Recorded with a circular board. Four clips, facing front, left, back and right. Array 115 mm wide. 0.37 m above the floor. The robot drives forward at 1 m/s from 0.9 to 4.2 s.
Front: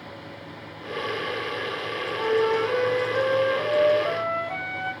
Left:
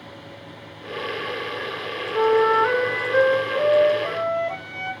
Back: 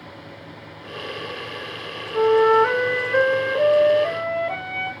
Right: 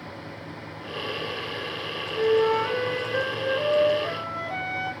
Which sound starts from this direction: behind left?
A flute, at 2.1 s.